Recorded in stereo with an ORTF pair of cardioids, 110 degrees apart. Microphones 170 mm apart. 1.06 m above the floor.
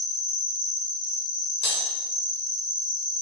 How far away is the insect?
About 0.9 m.